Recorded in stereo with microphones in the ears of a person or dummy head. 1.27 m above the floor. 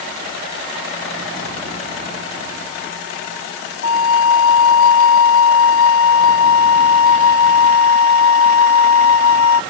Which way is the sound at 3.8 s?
75° left (ahead or behind).